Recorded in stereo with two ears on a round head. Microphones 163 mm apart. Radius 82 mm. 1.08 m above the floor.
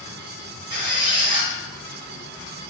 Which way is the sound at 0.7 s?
30° right (ahead or behind).